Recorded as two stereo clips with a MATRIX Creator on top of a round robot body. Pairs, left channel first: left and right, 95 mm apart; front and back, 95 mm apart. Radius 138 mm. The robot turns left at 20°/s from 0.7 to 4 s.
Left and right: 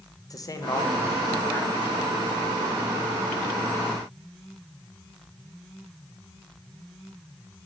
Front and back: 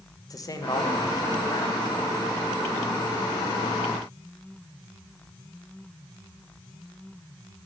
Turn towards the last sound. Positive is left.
turn(degrees=-20)